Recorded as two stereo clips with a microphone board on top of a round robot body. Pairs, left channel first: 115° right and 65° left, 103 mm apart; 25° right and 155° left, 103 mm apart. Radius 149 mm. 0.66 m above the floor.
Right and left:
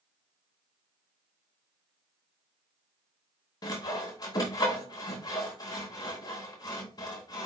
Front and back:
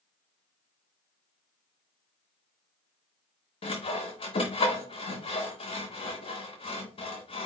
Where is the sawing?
60° right, 0.6 m.